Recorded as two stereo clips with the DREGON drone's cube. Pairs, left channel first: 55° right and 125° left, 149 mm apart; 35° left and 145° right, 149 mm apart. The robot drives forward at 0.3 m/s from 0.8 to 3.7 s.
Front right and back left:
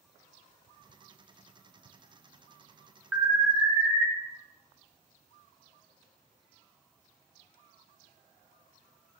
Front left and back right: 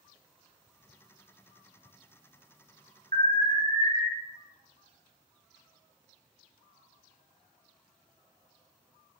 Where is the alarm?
155° right, 0.6 m; by 4.1 s 165° right, 0.7 m.